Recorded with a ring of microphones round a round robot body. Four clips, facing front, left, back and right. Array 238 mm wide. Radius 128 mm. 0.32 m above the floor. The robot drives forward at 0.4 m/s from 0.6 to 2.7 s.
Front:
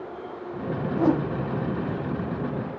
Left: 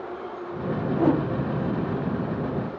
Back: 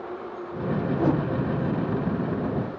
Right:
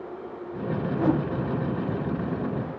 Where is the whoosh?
55° left, 0.9 m; by 1.2 s 70° left, 0.9 m.